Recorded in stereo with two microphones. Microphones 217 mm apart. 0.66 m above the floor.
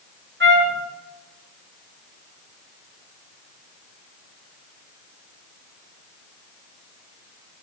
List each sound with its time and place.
0.4 s a trumpet: 60° right (ahead or behind), 5.5 m